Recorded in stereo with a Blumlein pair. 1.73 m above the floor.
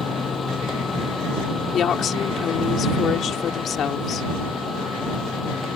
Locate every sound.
0.0 s a machine running: 20° left
1.7 s a woman speaking: 30° left